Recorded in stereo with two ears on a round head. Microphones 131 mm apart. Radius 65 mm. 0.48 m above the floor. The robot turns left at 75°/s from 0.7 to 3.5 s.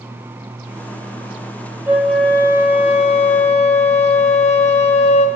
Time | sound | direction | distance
1.9 | a flute | 165° right | 1.8 m